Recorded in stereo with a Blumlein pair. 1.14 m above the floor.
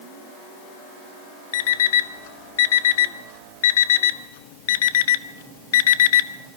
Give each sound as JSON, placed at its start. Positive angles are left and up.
{"t": 1.5, "sound": "an alarm clock", "azimuth_deg": 55, "distance_m": 0.8}